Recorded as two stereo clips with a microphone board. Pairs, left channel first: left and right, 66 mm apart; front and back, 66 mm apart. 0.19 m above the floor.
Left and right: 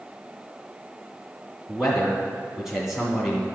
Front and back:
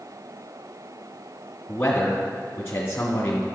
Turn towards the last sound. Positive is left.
turn(degrees=-10)